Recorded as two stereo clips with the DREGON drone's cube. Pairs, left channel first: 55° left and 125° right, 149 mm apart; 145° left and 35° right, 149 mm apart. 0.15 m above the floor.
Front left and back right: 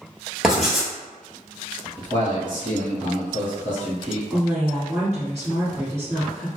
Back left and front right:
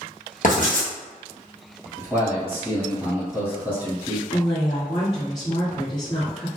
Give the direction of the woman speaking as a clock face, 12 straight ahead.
6 o'clock.